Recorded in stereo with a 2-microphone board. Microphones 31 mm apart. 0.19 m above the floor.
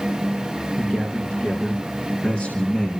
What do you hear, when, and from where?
0.8 s a man speaking: 40° left (ahead or behind), 2.5 m; by 3.0 s 45° left (ahead or behind), 1.5 m